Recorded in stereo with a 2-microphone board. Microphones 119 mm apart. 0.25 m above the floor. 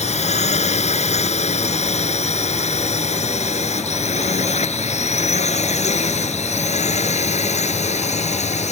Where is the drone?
70° left (ahead or behind).